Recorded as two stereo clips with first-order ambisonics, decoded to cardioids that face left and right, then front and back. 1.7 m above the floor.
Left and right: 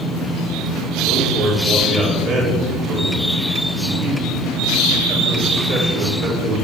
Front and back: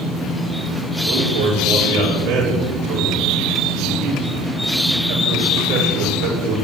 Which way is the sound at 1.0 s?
145° right.